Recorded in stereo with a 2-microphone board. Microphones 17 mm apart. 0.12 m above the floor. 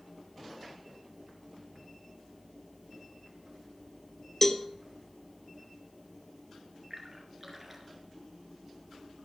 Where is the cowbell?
10° left (ahead or behind), 0.5 m.